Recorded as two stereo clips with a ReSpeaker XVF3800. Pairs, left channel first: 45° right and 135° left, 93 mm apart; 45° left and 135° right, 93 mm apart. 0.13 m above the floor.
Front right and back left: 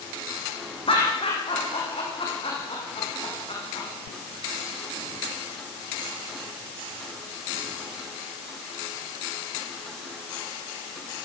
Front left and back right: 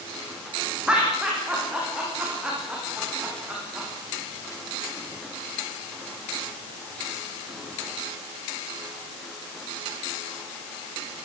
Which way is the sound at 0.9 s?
55° right.